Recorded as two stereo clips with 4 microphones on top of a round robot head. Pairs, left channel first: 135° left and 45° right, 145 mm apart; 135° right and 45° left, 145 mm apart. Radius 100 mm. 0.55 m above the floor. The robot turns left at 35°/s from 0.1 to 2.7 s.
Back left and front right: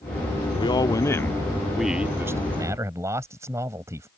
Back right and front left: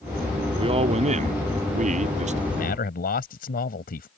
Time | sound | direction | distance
0.5 | a man speaking | 90° left | ?
2.5 | a man speaking | 110° right | ?